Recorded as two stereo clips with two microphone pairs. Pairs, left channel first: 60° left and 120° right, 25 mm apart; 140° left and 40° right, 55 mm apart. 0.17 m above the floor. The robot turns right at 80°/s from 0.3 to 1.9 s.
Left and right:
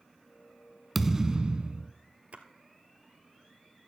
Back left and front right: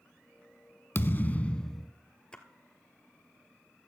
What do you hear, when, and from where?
0.9 s a thud: 155° left, 0.5 m; by 1.9 s 130° right, 0.5 m
2.3 s a splash: 145° right, 1.2 m